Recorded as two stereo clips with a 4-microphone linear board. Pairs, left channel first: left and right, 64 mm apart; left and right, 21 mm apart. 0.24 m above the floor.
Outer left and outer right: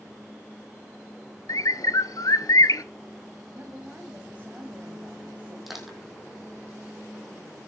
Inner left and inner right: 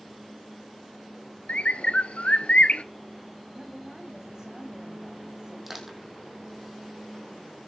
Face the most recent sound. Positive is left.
turn(degrees=0)  # may be behind; listen again after turning